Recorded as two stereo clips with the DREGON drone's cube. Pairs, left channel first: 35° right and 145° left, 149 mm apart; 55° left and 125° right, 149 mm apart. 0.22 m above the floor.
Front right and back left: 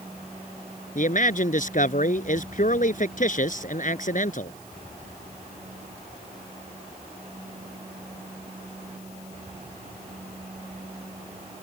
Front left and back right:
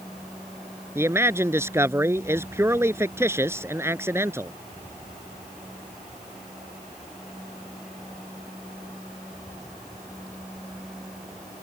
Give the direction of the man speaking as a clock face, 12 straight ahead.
2 o'clock.